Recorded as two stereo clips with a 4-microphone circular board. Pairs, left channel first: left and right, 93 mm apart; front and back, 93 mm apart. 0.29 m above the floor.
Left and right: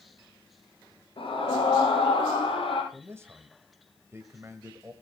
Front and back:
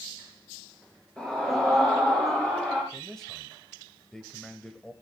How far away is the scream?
About 4 m.